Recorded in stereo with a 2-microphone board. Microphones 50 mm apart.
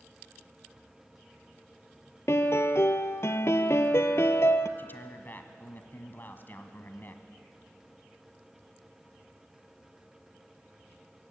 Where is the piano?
60° left (ahead or behind), 1.0 m.